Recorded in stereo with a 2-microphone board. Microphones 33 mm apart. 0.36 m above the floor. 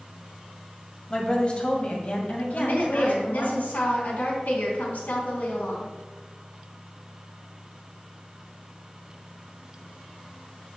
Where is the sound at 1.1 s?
25° left (ahead or behind), 1.7 m; by 3.6 s 60° left (ahead or behind), 3 m.